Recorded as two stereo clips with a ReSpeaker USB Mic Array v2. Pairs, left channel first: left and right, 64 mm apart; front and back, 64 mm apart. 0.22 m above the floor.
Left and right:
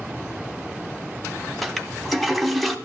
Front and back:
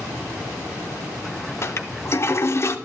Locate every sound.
1.6 s a toilet flushing: straight ahead, 0.8 m